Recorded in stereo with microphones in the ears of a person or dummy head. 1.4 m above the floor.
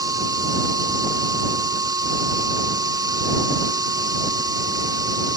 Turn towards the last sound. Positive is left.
turn(degrees=-20)  # may be behind; listen again after turning